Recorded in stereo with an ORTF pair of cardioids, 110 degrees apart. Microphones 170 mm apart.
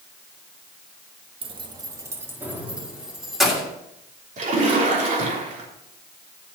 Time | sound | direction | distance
1.4 | keys jangling | 35° right | 1.3 m
4.4 | a splash | 50° right | 3 m